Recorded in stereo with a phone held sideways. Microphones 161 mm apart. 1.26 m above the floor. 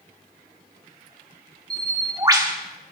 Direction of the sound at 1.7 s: 25° right (ahead or behind).